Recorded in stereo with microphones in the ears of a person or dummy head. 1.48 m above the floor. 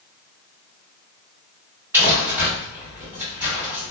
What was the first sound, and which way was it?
Crumpling, 15° right (ahead or behind).